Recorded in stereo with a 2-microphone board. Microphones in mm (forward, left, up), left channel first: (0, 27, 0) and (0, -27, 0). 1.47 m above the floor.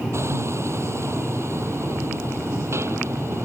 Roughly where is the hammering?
Right.